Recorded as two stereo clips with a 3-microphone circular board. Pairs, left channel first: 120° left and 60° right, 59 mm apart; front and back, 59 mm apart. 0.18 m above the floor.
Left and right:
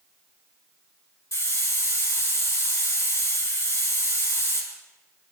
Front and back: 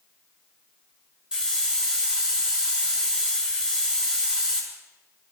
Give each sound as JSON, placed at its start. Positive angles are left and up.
{"t": 1.3, "sound": "a hiss", "azimuth_deg": 105, "distance_m": 7.5}